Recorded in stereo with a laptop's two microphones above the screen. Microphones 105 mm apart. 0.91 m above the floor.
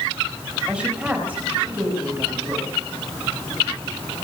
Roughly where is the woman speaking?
Centre.